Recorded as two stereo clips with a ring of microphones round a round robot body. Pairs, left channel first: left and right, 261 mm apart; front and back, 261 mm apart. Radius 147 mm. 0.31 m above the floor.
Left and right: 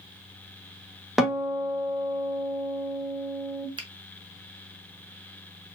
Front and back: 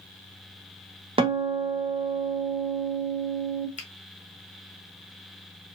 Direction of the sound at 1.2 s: 175° right.